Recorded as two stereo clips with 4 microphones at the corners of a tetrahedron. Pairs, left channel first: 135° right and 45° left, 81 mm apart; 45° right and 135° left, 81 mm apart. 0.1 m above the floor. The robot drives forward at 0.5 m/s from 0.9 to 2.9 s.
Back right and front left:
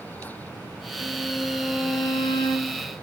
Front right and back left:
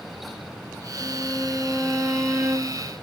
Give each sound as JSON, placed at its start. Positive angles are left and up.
{"t": 1.0, "sound": "a violin", "azimuth_deg": -135, "distance_m": 0.9}